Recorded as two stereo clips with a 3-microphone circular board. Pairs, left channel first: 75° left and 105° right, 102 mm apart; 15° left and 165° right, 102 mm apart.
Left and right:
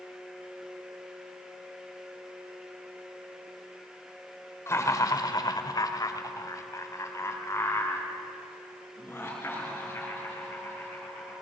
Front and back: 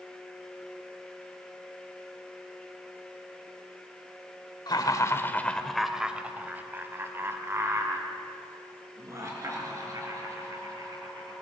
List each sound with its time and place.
4.7 s laughter: 25° left, 1.4 m; by 11.3 s 145° left, 8.5 m